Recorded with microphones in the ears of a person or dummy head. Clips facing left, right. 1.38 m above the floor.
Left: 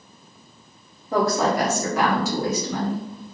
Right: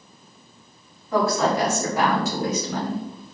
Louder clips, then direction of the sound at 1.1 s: Even; 20° left (ahead or behind).